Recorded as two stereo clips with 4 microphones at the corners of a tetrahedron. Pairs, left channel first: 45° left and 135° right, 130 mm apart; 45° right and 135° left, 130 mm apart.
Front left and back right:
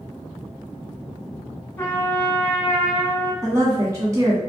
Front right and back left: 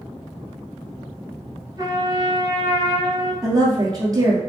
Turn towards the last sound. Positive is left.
turn(degrees=175)